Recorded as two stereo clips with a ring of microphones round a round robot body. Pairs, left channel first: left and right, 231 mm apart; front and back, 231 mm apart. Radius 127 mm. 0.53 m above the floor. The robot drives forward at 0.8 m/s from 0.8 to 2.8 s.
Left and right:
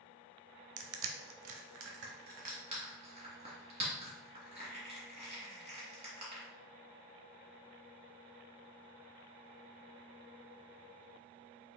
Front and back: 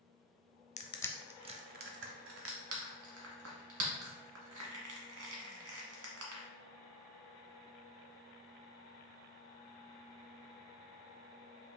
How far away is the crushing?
About 0.7 m.